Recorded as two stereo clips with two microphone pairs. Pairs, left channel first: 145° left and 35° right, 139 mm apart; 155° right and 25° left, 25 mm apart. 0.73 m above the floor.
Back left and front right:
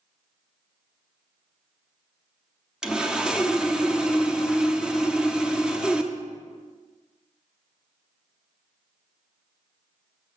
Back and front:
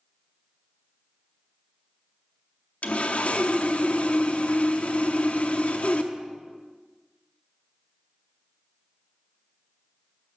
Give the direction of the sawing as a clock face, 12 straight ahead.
4 o'clock.